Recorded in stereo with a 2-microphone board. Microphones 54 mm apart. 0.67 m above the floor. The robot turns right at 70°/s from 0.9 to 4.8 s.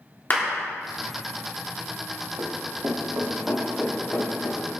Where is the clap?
40° left (ahead or behind), 1.5 m.